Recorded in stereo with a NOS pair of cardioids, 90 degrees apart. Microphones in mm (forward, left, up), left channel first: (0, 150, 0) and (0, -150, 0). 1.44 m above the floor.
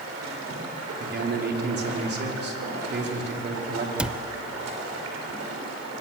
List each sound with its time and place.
0.0 s running water: 55° right, 5.5 m
1.0 s a man speaking: 35° right, 4.5 m
4.0 s a cupboard door: 5° right, 0.6 m